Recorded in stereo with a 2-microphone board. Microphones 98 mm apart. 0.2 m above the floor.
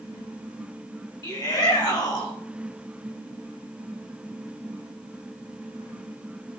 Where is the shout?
40° left (ahead or behind), 4.5 m.